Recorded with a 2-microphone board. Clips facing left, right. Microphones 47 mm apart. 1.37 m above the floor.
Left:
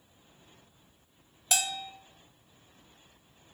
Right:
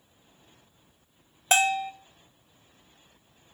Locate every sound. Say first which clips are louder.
1.5 s a bell: right 10 dB; 40° right (ahead or behind), 0.6 m